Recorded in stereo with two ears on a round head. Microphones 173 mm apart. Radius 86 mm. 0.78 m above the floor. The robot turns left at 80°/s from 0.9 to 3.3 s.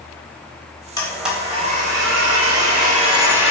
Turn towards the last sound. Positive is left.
turn(degrees=-170)